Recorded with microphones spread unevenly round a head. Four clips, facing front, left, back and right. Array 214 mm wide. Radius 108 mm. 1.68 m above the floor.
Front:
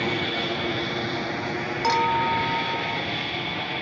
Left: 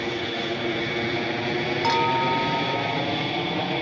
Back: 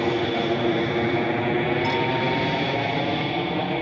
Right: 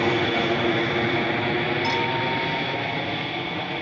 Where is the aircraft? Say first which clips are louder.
Right 6 dB, back 5 dB; 135° right; by 3.8 s 155° left.